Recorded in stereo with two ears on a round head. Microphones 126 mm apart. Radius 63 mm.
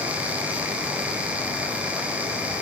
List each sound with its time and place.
Only background noise.